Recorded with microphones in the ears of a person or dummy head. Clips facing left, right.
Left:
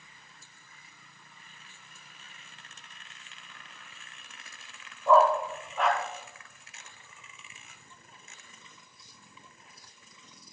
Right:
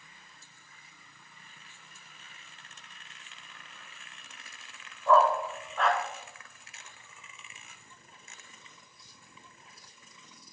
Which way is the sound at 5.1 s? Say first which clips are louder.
Left 2 dB; 15° left (ahead or behind).